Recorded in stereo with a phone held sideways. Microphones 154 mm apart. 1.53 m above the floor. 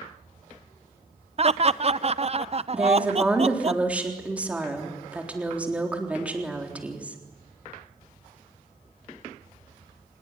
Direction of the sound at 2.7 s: 10° right (ahead or behind).